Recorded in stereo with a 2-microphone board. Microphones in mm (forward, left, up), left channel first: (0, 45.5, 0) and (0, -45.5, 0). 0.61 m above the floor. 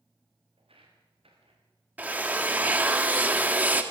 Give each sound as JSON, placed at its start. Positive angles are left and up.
{"t": 0.6, "sound": "footsteps", "side_deg": -80, "distance_m": 5.0}
{"t": 2.0, "sound": "a drill", "side_deg": -15, "distance_m": 1.5}